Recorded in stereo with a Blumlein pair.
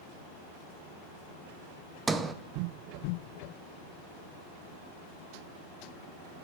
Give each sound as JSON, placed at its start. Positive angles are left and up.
{"t": 2.1, "sound": "a sliding door", "azimuth_deg": -15, "distance_m": 0.7}